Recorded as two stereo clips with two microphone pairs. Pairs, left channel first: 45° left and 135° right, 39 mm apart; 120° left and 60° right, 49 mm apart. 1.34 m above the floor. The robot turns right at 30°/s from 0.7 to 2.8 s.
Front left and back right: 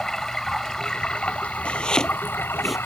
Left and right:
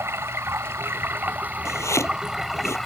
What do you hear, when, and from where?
0.0 s running water: 30° right; by 2.9 s 30° left
1.6 s chopping: 105° left; by 2.8 s 140° left